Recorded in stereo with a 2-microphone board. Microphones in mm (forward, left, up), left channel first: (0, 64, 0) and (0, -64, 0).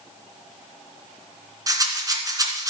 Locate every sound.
1.7 s a rattle: 25° right (ahead or behind), 2.5 m